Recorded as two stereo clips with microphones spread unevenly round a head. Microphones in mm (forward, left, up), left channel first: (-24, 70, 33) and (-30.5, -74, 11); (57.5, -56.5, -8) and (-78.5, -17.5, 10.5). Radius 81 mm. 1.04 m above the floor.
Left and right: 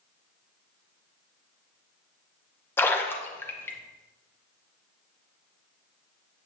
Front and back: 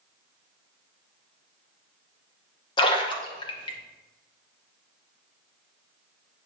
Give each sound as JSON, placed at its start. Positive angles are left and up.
{"t": 2.8, "sound": "a splash", "azimuth_deg": 10, "distance_m": 0.9}